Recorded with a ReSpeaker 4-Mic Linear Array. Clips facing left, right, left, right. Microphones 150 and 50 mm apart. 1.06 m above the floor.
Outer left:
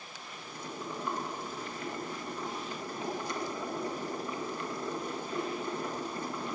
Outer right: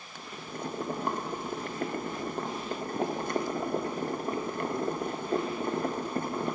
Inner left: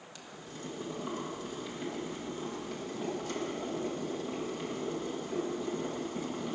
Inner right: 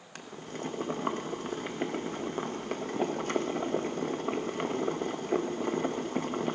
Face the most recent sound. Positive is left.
turn(degrees=-55)  # may be behind; listen again after turning